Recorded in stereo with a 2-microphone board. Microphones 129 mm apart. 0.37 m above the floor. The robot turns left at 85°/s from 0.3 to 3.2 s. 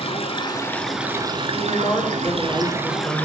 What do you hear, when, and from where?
0.0 s running water: 50° left, 0.8 m; by 3.2 s 165° left, 0.8 m
1.5 s a woman speaking: 110° left, 1.2 m; by 3.2 s 30° right, 1.2 m